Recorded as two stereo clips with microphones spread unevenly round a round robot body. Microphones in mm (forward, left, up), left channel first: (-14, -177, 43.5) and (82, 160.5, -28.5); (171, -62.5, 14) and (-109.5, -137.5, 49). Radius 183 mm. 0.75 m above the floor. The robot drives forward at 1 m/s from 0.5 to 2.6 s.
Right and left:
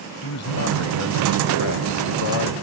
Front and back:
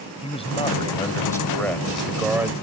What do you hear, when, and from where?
0.2 s a man speaking: 55° right; by 2.5 s 85° right